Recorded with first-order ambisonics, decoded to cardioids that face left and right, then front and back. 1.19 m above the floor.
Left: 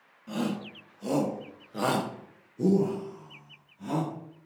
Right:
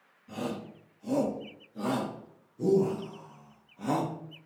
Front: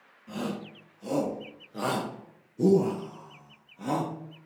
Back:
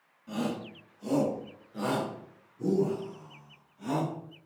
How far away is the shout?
About 1.9 m.